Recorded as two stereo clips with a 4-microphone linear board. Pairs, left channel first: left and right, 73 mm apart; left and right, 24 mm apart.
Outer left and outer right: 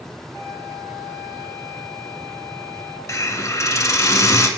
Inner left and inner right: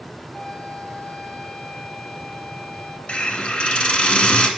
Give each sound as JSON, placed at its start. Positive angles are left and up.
{"t": 0.3, "sound": "a flute", "side_deg": 55, "distance_m": 1.5}
{"t": 3.1, "sound": "a hiss", "side_deg": 45, "distance_m": 0.7}